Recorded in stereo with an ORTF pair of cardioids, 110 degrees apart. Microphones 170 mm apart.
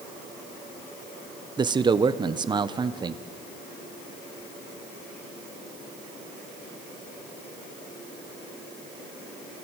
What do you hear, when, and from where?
1.6 s a man speaking: 25° right, 1.2 m